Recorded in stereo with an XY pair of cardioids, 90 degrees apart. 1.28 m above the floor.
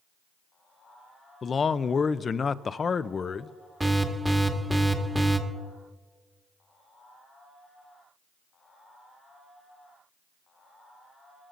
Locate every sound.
1.4 s a man speaking: 45° left, 0.5 m
3.8 s an alarm: 15° right, 1.5 m